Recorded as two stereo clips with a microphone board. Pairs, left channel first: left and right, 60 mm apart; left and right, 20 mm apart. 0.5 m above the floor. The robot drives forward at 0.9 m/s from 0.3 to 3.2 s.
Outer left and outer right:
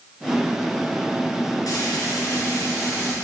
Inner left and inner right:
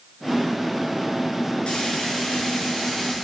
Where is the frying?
75° left (ahead or behind), 2 m; by 3.1 s 50° left (ahead or behind), 3 m.